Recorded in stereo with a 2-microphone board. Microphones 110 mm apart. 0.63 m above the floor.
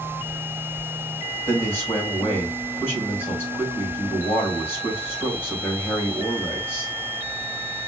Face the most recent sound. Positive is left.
turn(degrees=20)  # may be behind; listen again after turning